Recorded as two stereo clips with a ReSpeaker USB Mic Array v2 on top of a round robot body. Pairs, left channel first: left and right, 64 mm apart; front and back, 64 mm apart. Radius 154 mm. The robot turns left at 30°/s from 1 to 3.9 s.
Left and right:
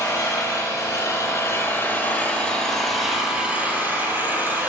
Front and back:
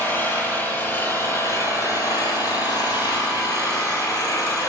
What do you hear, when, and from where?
0.0 s an engine running: 55° left, 8.5 m; by 4.7 s 30° right, 8.5 m